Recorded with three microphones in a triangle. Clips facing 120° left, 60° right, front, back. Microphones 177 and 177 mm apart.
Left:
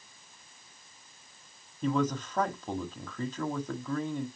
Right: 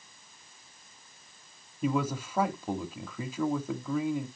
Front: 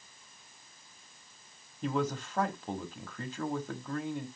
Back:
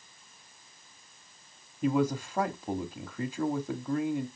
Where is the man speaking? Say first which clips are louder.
Left 1 dB, back 5 dB; 125° right, 1.0 m.